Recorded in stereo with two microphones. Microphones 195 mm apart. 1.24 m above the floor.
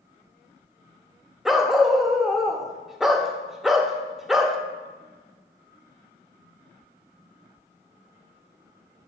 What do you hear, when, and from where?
1.4 s a dog barking: centre (ahead or behind), 0.6 m